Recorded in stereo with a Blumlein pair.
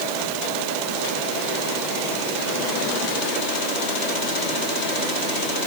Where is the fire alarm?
I don't hear a fire alarm.